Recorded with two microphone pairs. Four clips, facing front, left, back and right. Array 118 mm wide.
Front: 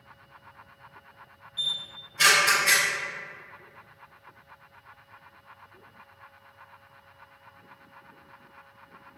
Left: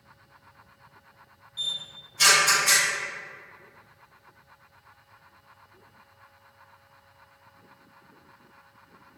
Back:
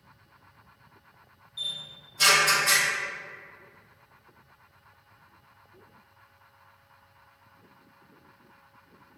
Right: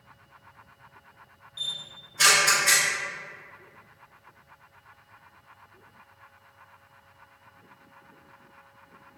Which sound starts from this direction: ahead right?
A camera shutter, at 1.6 s.